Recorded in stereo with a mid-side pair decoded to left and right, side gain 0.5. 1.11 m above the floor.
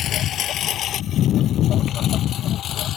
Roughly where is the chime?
No chime in this recording.